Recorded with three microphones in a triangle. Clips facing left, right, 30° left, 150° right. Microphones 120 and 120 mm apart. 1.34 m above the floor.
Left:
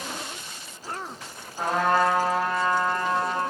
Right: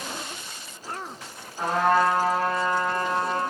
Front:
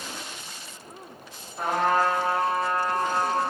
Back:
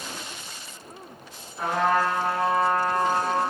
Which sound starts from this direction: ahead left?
A trumpet, at 1.6 s.